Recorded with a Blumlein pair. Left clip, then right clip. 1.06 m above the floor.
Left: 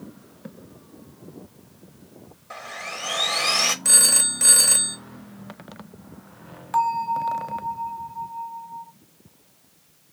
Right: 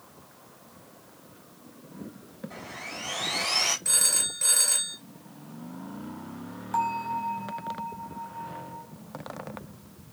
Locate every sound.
2.5 s sawing: 50° left, 0.7 m
3.9 s a phone ringing: 55° left, 0.7 m
6.7 s a bell: 25° left, 0.8 m